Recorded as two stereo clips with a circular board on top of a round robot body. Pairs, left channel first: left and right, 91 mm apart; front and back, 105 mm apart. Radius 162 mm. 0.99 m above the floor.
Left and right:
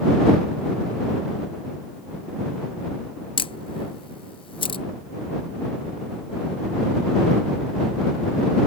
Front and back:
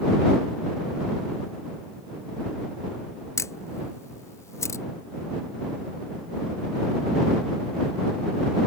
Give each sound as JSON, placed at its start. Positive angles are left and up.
{"t": 3.4, "sound": "a camera shutter", "azimuth_deg": 65}